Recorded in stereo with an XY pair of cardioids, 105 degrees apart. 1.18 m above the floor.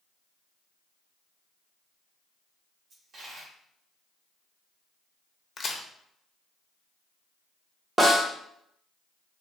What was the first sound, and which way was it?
A dropped coin, 55° right.